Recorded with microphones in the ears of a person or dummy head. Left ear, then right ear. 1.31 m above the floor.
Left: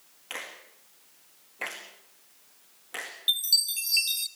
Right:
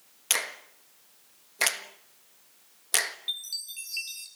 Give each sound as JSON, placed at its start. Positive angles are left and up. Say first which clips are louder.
{"t": 0.3, "sound": "a finger snap", "louder": "right 9 dB", "side_deg": -85, "distance_m": 1.4}
{"t": 3.3, "sound": "a chime", "louder": "left 10 dB", "side_deg": 25, "distance_m": 1.2}